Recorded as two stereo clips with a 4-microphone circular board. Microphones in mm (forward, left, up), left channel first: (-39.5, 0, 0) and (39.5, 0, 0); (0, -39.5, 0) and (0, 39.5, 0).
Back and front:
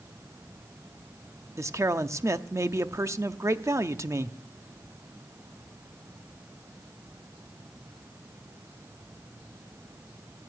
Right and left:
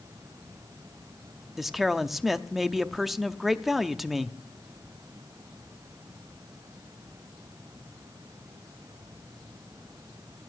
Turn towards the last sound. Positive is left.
turn(degrees=5)